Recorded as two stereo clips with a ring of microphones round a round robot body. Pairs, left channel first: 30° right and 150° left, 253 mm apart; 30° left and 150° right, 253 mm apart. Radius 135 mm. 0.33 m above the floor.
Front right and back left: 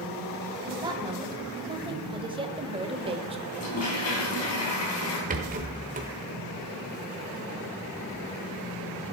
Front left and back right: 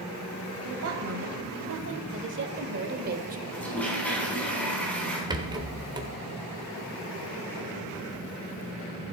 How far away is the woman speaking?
About 2.5 m.